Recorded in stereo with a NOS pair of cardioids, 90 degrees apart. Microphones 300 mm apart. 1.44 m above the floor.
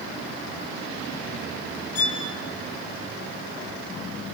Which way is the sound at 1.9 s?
55° left.